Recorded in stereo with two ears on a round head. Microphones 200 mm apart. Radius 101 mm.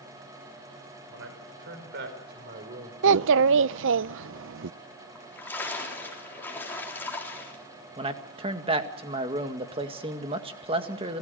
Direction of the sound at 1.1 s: 55° right (ahead or behind).